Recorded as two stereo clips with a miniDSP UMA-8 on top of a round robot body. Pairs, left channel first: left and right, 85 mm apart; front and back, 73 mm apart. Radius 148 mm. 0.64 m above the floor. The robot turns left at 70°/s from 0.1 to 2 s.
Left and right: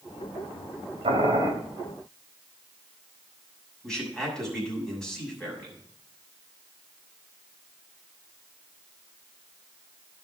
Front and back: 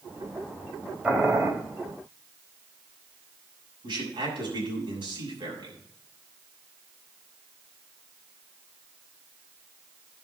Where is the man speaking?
175° left, 7 m.